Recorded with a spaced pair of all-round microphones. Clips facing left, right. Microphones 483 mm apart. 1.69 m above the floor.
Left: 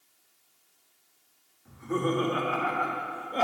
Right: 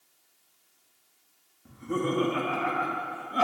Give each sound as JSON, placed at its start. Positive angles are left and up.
{"t": 1.6, "sound": "laughter", "side_deg": -50, "distance_m": 3.0}